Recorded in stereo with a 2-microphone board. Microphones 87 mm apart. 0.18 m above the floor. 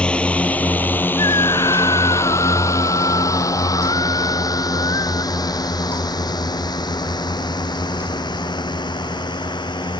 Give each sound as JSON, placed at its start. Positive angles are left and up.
{"t": 0.0, "sound": "a drone", "side_deg": 10}
{"t": 1.2, "sound": "a scream", "side_deg": 50}